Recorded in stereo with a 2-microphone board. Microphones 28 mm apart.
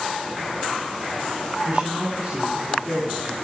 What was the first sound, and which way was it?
A man speaking, 40° right (ahead or behind).